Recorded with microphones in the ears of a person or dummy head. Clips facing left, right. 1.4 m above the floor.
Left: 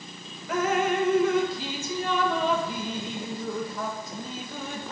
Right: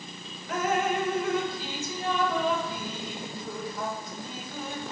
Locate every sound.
0.5 s dripping: 60° left (ahead or behind), 1.1 m